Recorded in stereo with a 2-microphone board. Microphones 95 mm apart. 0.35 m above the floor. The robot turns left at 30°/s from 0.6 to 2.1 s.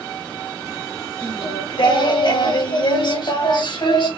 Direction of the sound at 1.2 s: 65° left (ahead or behind).